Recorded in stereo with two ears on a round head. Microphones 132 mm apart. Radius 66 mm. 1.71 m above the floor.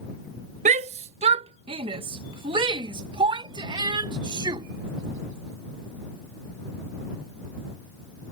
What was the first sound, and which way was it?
A shout, 50° right (ahead or behind).